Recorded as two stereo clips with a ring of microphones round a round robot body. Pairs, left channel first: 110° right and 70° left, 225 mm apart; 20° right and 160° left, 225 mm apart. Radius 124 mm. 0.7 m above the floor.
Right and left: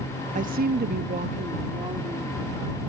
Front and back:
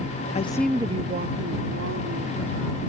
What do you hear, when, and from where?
0.3 s a woman speaking: 25° left; by 2.8 s 140° left